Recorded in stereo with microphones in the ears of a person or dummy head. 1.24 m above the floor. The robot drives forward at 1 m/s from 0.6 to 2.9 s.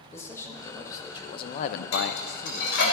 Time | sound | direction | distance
0.1 | a man speaking | 20° left (ahead or behind) | 1.5 m
1.9 | dishes clattering | 85° left | 3.5 m